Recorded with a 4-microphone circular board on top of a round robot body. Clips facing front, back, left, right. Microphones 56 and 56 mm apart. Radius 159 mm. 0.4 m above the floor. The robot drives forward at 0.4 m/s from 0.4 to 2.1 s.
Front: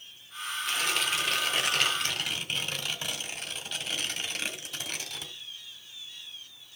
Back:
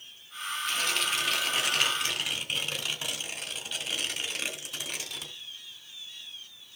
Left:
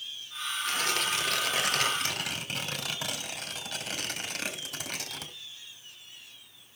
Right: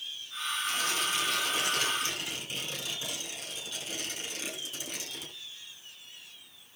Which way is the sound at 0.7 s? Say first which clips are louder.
Front 1 dB, left 3 dB; 85° left.